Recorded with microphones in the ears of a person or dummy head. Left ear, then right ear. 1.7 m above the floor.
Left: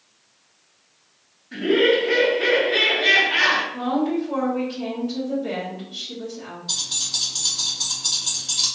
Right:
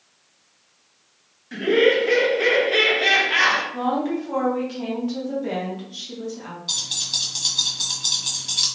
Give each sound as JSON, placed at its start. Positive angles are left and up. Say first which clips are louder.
{"t": 1.5, "sound": "laughter", "louder": "right 1 dB", "side_deg": -65, "distance_m": 1.0}
{"t": 3.7, "sound": "a woman speaking", "louder": "even", "side_deg": -50, "distance_m": 1.0}
{"t": 6.7, "sound": "keys jangling", "louder": "right 1 dB", "side_deg": -45, "distance_m": 1.4}